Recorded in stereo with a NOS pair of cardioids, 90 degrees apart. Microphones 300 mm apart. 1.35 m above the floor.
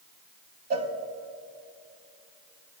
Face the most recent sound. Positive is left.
turn(degrees=-60)